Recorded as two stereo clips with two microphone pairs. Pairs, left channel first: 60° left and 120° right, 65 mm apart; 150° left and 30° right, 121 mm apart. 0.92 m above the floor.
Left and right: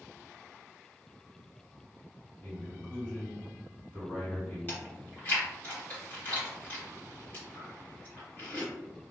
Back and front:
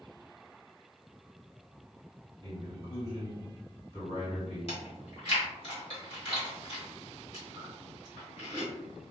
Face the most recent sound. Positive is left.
turn(degrees=120)